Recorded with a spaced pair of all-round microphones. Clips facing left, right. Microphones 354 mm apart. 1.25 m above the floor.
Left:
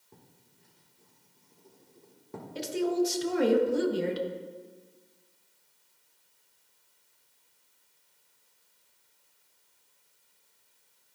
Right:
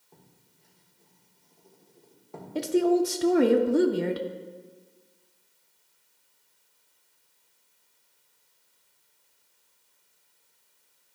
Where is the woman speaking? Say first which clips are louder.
Right 6 dB; 65° right (ahead or behind), 0.6 m.